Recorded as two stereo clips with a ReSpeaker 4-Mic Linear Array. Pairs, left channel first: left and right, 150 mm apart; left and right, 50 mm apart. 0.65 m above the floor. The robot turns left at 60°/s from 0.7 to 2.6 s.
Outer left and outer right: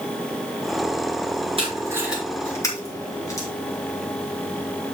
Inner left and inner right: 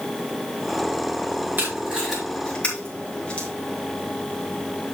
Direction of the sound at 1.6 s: 40° right (ahead or behind).